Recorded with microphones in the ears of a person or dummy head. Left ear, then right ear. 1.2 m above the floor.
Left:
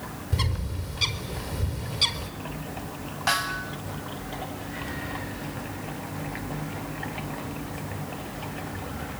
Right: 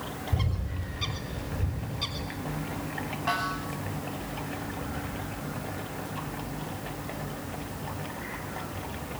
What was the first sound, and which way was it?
A bird, 55° left (ahead or behind).